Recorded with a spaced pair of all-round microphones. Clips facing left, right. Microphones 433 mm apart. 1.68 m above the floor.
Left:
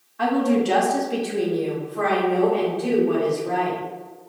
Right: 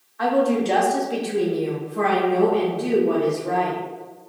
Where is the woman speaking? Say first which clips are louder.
Even; 50° left (ahead or behind), 0.7 m; by 3.8 s 70° right (ahead or behind), 1.6 m.